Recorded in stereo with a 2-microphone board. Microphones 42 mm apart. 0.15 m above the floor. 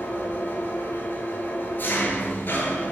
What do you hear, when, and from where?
0.0 s an engine running: 55° left (ahead or behind), 0.7 m